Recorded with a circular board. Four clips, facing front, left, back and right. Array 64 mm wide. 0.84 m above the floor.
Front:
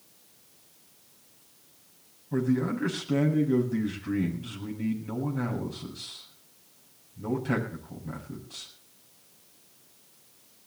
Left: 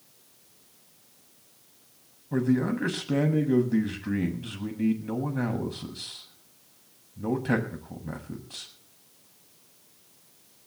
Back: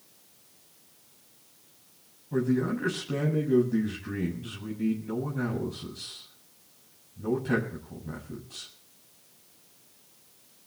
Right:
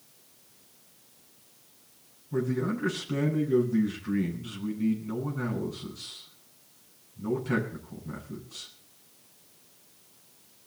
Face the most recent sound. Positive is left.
turn(degrees=80)